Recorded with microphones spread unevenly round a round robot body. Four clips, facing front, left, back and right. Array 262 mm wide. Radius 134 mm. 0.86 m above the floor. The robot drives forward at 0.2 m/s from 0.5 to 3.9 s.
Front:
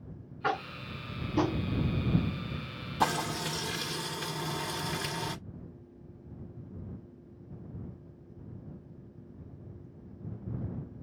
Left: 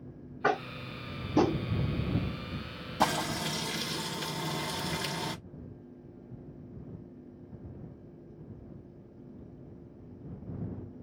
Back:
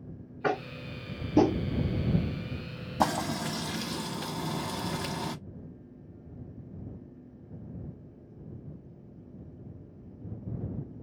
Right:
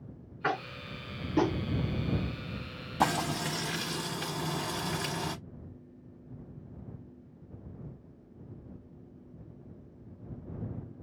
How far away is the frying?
About 1.1 m.